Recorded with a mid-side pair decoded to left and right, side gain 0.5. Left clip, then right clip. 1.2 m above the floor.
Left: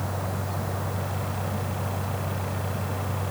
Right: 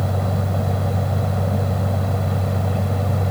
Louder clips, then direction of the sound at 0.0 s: Right 6 dB; 60° right.